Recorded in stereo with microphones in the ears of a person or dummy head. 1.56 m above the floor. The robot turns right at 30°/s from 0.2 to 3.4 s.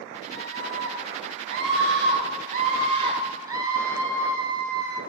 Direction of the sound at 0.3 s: 105° right.